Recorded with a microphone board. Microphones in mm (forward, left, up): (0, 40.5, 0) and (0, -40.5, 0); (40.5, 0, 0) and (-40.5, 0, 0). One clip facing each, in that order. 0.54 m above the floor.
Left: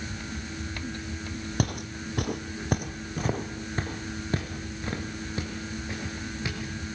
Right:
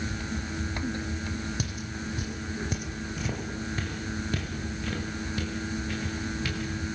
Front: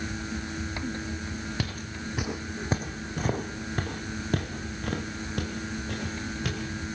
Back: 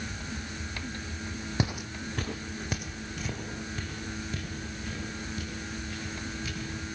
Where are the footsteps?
115° left, 1.2 m; by 7.0 s 20° left, 6 m.